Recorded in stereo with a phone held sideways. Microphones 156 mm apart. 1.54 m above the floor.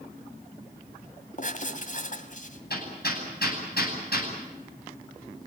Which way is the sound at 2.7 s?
85° left.